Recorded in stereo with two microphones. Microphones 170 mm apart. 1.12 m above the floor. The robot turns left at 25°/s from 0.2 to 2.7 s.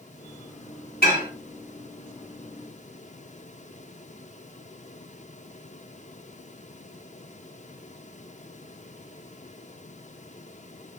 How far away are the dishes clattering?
About 1.7 m.